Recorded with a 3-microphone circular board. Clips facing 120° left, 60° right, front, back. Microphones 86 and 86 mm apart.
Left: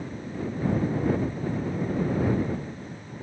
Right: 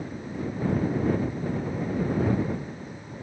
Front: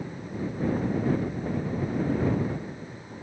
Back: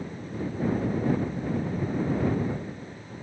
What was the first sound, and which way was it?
Only background noise.